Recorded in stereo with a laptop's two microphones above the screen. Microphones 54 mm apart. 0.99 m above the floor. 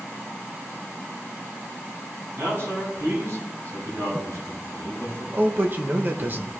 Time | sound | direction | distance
2.4 | a man speaking | 55° right (ahead or behind) | 6 m
5.3 | a man speaking | 40° right (ahead or behind) | 1.1 m